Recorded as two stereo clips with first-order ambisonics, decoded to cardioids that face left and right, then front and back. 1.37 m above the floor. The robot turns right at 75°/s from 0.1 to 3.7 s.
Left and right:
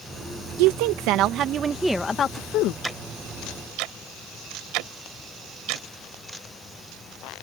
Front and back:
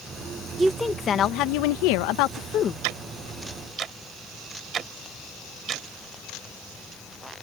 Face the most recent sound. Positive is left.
turn(degrees=-115)